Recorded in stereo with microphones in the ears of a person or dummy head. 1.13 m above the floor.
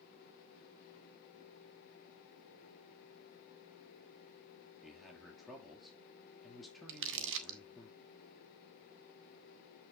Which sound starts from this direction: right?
Crumpling, at 6.9 s.